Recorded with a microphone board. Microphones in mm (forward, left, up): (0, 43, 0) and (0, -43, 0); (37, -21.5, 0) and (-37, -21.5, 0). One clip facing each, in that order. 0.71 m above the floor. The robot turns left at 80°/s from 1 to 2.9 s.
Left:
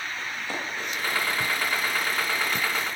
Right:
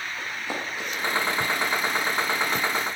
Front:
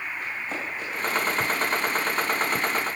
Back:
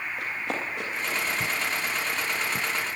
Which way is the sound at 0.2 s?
165° right.